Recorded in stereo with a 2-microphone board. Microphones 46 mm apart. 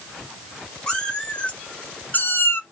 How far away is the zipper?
No zipper in this recording.